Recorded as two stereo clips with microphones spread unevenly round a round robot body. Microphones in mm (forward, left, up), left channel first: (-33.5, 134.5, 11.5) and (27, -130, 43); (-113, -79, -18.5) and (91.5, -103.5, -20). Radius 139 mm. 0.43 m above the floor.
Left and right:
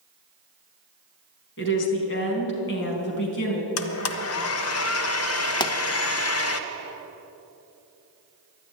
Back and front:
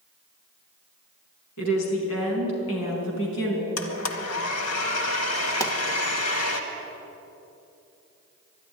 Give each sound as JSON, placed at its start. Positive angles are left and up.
{"t": 1.6, "sound": "a woman speaking", "azimuth_deg": 150, "distance_m": 4.0}
{"t": 3.8, "sound": "a blender", "azimuth_deg": 140, "distance_m": 1.0}
{"t": 5.6, "sound": "a pop", "azimuth_deg": 120, "distance_m": 0.8}